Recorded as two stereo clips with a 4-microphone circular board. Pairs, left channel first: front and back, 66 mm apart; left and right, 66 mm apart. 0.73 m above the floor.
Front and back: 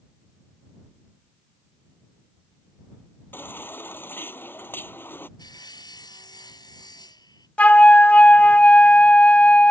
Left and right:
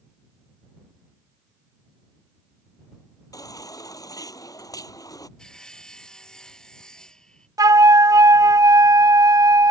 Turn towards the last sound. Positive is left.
turn(degrees=-70)